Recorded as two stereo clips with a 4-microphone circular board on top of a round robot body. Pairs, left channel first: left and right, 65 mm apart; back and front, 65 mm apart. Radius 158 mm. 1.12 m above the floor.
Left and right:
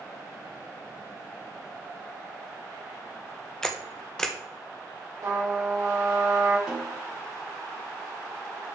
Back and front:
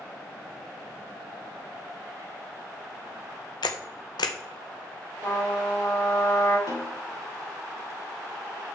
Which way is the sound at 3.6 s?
170° left.